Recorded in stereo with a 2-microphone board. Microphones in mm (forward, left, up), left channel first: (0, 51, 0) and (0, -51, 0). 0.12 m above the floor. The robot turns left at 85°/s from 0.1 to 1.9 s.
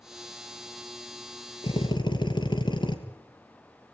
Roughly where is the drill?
Left.